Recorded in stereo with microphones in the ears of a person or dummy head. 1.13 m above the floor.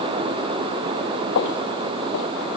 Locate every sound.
1.4 s footsteps: 60° left (ahead or behind), 2 m